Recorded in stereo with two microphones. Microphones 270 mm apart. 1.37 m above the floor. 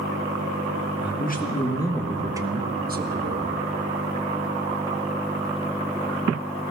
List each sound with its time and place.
1.0 s a man speaking: 40° left (ahead or behind), 1.7 m; by 3.6 s 50° right (ahead or behind), 1.9 m